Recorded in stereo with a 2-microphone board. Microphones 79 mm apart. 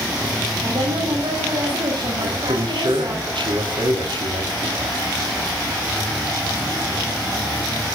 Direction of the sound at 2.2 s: 85° right.